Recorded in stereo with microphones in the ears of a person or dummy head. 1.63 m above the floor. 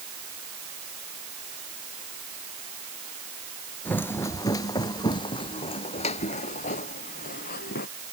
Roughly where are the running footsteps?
Centre.